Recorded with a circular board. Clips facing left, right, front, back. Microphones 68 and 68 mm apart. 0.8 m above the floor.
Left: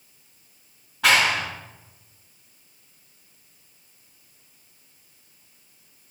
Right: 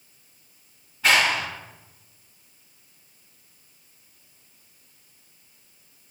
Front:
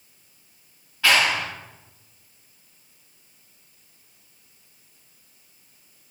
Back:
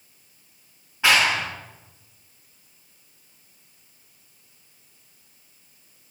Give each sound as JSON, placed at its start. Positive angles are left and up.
{"t": 1.0, "sound": "a clap", "azimuth_deg": 110, "distance_m": 6.0}